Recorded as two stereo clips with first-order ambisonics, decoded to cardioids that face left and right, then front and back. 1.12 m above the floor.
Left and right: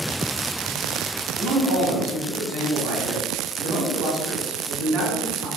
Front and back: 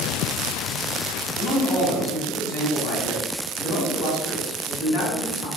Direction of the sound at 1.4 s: 35° right.